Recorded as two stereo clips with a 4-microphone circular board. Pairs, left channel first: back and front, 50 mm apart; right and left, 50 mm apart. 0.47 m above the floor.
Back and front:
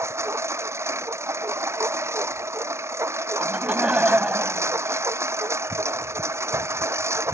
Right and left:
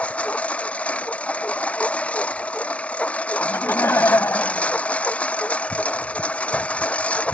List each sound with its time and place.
0.0 s a lawn mower: 25° right
3.4 s laughter: 60° right